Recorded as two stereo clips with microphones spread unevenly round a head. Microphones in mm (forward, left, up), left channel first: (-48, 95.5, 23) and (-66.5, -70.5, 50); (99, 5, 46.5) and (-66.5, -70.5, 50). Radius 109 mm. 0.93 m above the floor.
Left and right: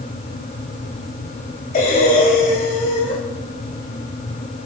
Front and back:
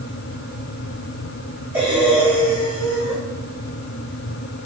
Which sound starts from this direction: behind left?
Breathing, at 1.7 s.